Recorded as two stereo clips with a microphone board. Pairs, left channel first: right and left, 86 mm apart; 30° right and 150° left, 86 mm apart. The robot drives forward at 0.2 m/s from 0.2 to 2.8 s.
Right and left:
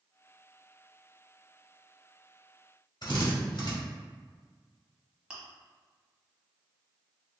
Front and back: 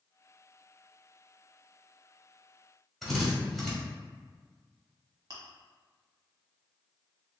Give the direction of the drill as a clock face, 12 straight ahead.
4 o'clock.